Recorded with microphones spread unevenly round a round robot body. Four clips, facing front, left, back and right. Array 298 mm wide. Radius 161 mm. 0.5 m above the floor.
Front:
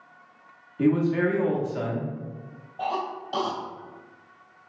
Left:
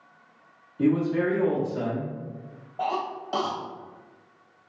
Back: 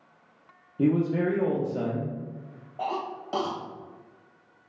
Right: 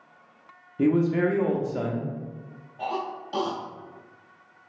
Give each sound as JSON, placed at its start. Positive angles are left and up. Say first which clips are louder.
{"t": 0.8, "sound": "a man speaking", "louder": "right 1 dB, front 2 dB", "azimuth_deg": -85, "distance_m": 0.8}
{"t": 2.8, "sound": "a cough", "louder": "left 2 dB, front 2 dB", "azimuth_deg": 165, "distance_m": 0.9}